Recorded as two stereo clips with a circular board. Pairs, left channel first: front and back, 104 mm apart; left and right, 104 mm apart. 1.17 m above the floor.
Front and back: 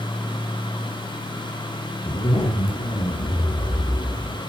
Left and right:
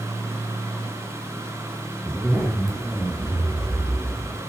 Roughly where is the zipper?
Ahead.